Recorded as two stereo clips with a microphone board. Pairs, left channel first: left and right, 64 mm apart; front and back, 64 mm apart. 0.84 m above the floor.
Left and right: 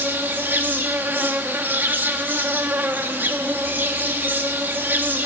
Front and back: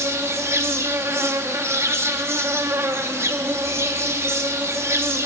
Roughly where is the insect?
Behind right.